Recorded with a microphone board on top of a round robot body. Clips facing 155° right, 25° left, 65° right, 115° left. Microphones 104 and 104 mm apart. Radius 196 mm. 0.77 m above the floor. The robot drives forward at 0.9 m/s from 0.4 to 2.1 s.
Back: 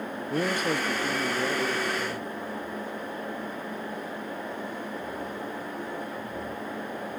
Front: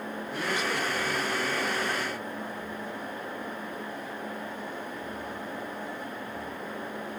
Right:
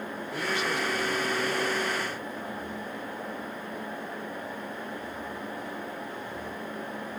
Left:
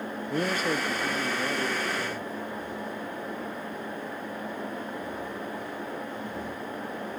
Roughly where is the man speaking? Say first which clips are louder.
Back 4 dB, left 3 dB; behind.